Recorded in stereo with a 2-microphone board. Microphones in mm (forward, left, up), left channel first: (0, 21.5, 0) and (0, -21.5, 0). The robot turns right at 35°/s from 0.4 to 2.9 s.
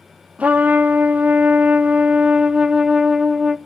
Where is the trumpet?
115° right, 0.5 m; by 3.6 s 30° right, 0.5 m.